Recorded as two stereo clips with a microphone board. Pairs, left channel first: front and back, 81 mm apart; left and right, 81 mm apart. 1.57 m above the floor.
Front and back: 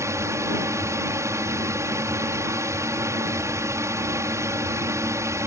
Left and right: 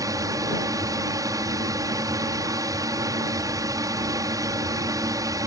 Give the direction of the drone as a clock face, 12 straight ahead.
4 o'clock.